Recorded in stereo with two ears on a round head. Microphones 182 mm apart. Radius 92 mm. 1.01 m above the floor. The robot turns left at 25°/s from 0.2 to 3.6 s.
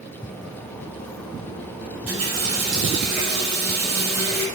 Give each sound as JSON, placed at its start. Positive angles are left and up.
{"t": 2.1, "sound": "a running tap", "azimuth_deg": -95, "distance_m": 1.5}